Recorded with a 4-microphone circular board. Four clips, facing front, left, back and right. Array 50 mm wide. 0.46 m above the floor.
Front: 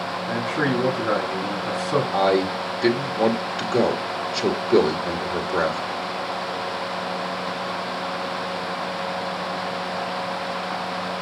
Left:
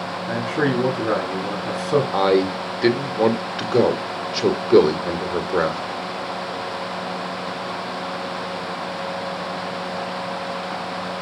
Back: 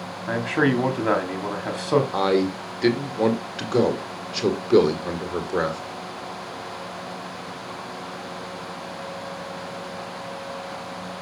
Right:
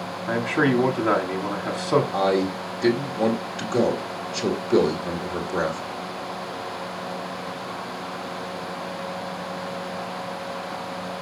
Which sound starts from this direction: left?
A man speaking, at 2.1 s.